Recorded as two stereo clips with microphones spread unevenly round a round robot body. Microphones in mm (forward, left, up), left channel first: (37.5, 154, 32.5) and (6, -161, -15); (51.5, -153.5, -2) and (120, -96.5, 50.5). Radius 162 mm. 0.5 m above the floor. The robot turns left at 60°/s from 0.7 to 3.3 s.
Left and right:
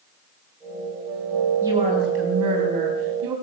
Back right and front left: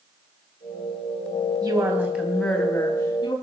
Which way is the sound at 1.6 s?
15° right.